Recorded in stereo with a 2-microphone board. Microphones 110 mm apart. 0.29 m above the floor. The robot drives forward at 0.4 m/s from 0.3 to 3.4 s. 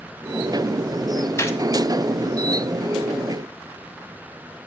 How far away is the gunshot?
About 1.6 m.